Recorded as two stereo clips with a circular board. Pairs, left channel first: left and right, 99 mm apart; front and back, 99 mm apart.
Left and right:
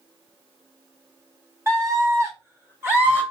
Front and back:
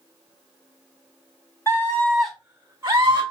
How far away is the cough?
I don't hear a cough.